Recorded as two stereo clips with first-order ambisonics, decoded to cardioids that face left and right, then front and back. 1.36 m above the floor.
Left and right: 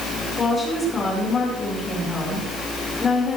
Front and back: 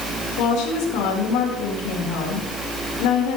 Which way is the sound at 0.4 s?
20° left.